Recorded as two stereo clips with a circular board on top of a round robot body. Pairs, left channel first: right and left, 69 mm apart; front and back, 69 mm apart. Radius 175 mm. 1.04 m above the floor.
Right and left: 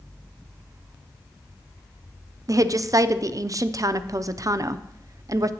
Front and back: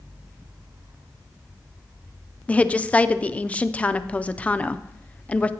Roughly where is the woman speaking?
Left.